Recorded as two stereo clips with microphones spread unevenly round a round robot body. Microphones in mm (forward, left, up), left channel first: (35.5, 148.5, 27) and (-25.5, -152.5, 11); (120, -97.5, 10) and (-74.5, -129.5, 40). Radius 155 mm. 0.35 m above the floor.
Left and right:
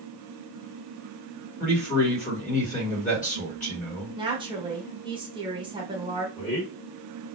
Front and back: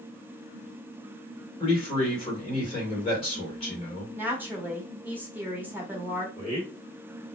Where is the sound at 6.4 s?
25° left, 1.6 m.